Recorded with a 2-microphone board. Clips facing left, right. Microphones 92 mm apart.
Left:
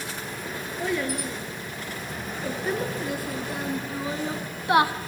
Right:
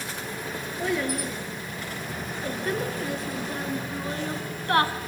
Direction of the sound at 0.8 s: Centre (ahead or behind).